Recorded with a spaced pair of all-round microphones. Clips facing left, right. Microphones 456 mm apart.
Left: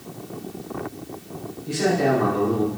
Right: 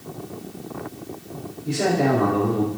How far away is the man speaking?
About 5 m.